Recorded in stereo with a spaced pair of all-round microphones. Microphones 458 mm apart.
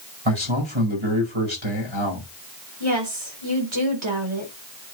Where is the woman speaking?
85° right, 4 m.